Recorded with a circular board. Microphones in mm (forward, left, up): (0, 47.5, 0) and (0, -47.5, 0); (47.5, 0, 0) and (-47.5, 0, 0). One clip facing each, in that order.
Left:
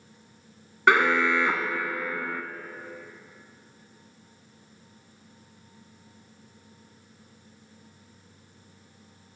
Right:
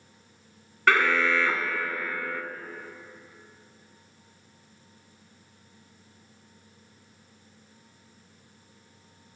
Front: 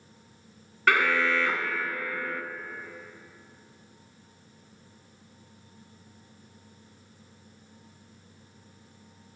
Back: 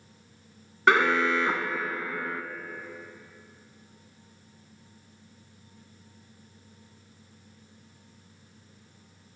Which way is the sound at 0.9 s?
140° left.